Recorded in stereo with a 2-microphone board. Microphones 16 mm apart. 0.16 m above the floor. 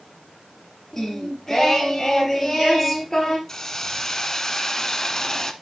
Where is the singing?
25° left (ahead or behind), 2.5 m.